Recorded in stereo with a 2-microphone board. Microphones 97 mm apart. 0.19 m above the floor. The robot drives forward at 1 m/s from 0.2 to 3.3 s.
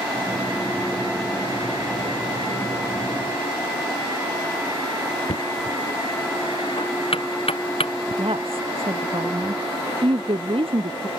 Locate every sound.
5.3 s knocking: 70° left (ahead or behind)
8.2 s a woman speaking: 70° right (ahead or behind)